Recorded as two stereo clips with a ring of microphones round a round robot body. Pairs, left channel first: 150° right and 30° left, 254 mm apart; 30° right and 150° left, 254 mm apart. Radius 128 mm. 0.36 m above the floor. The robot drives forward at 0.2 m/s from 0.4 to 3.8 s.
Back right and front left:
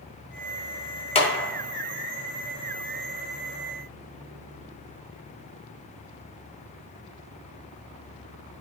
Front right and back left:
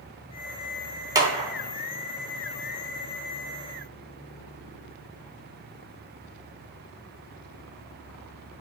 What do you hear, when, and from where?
1.1 s a clap: 160° right, 0.8 m; by 1.5 s 165° right, 0.8 m